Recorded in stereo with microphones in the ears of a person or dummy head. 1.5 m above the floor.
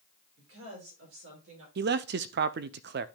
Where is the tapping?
I don't hear tapping.